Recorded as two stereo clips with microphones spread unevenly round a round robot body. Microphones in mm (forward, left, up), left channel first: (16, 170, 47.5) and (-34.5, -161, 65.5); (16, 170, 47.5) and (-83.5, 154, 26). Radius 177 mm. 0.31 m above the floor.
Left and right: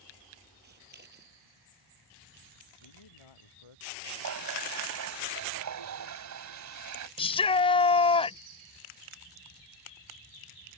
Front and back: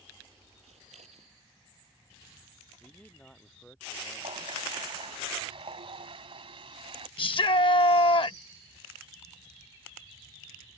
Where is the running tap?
135° right.